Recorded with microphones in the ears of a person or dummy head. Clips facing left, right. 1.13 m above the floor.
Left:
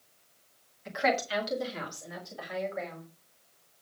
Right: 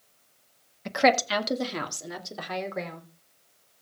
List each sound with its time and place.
0.8 s a woman speaking: 65° right (ahead or behind), 1.4 m; by 3.0 s 75° right (ahead or behind), 3.5 m